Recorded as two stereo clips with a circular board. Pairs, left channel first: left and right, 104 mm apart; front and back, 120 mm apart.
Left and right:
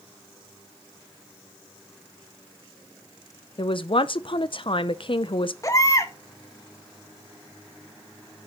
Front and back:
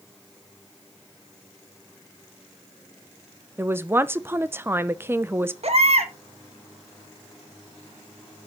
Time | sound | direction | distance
3.6 | a man speaking | 110° left | 0.6 m
5.6 | a baby crying | 150° left | 1.1 m